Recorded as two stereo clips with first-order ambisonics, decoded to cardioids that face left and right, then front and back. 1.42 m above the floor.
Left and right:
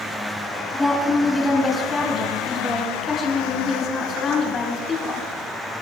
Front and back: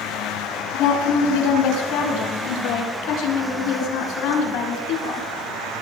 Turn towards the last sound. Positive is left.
turn(degrees=35)